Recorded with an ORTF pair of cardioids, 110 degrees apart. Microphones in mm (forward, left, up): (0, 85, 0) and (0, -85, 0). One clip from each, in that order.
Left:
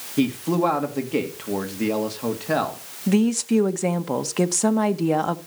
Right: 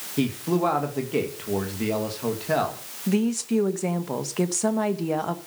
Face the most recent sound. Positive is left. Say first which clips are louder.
# left 4 dB
turn(degrees=25)